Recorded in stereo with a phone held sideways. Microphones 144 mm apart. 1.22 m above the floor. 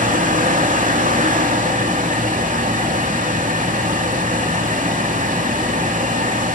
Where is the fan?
65° right (ahead or behind), 2.5 m.